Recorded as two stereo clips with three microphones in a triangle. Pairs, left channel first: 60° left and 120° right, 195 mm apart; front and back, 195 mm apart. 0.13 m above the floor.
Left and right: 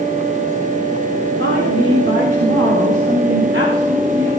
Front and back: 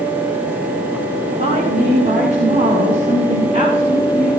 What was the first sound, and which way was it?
A woman speaking, 125° right.